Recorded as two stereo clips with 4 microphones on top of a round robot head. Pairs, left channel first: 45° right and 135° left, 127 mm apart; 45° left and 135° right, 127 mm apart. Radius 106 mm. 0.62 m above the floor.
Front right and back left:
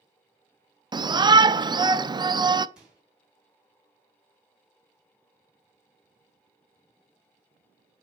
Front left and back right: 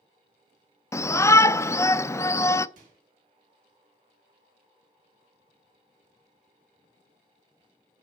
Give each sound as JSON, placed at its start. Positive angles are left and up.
{"t": 0.9, "sound": "a shout", "azimuth_deg": 100, "distance_m": 0.7}
{"t": 2.8, "sound": "a microwave", "azimuth_deg": -140, "distance_m": 4.0}